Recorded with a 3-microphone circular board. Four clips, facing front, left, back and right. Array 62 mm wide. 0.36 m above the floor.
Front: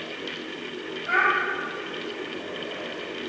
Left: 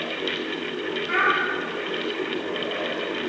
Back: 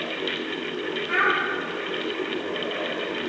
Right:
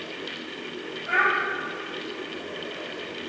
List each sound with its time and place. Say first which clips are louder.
1.1 s a child speaking: even, front 1 dB; 25° right, 6.5 m